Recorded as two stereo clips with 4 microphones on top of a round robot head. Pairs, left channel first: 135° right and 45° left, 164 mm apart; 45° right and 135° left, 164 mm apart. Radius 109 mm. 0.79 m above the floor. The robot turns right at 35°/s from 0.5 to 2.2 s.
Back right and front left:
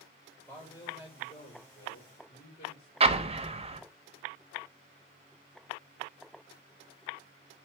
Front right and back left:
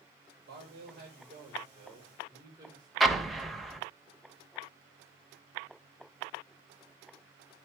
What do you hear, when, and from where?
0.5 s a man speaking: 145° left, 3.5 m; by 2.9 s 155° right, 3.5 m
3.0 s an explosion: 45° left, 1.0 m